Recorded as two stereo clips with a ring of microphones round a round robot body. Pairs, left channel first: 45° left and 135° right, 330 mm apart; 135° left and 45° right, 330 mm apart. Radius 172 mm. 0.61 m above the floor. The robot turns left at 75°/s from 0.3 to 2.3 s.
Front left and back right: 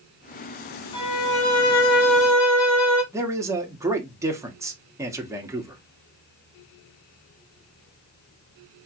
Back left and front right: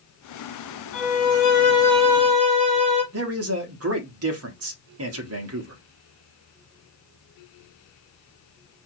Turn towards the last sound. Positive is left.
turn(degrees=-55)